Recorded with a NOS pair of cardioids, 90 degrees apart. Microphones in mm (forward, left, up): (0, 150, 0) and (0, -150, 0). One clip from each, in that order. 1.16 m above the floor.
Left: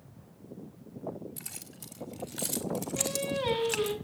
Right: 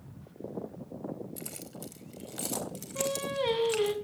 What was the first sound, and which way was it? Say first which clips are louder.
Keys jangling: right 3 dB; 5° right.